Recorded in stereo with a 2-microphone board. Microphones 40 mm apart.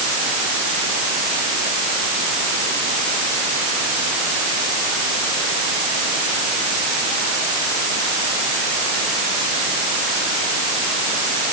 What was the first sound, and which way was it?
Only background noise.